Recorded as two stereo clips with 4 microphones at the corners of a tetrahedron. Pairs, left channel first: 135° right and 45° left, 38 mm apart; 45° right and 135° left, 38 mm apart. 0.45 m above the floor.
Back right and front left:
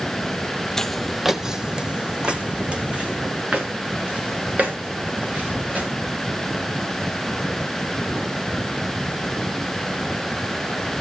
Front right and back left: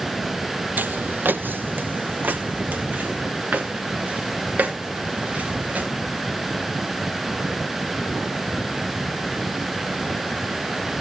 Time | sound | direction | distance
0.8 | footsteps | 150° left | 0.8 m